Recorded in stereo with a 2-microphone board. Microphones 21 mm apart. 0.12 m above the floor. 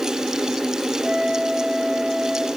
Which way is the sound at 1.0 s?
40° right (ahead or behind).